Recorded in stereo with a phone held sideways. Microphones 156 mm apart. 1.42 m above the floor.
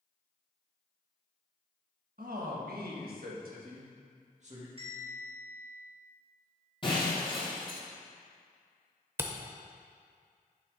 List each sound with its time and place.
2.2 s a man speaking: 70° right (ahead or behind), 1.5 m; by 4.7 s 45° right (ahead or behind), 2.0 m
4.8 s a bell: 40° right (ahead or behind), 2.5 m
6.8 s breaking glass: 35° left (ahead or behind), 2.5 m
9.2 s a camera shutter: 15° right (ahead or behind), 0.7 m